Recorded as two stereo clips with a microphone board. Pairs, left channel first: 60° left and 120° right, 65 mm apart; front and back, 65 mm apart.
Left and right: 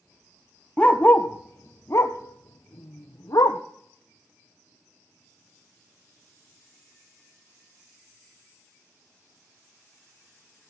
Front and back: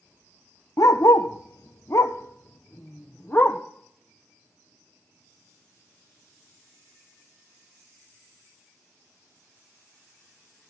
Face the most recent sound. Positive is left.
turn(degrees=55)